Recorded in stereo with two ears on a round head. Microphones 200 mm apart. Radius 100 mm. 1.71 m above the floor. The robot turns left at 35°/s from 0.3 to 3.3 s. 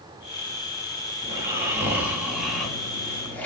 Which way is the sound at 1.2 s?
15° right (ahead or behind).